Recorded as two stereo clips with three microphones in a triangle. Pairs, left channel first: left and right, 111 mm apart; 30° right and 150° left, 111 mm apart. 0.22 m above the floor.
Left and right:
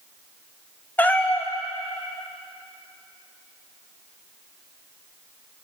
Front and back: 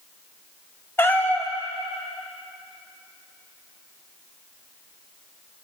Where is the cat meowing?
25° left, 0.6 m.